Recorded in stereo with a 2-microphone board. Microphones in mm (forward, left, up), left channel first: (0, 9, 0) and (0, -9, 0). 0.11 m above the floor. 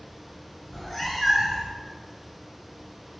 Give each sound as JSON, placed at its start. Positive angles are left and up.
{"t": 0.7, "sound": "a cat meowing", "side_deg": 25, "distance_m": 0.7}